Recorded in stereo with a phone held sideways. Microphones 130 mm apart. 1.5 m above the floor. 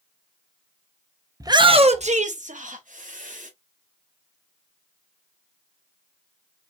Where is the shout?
25° right (ahead or behind), 0.8 m; by 3.5 s 85° right, 2.5 m.